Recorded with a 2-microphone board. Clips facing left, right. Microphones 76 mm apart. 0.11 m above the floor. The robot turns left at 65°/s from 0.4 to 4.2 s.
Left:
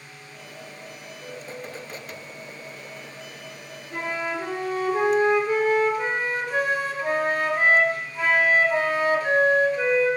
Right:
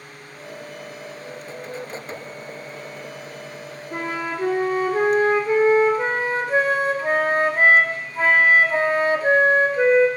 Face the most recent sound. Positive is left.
turn(degrees=-35)  # may be behind; listen again after turning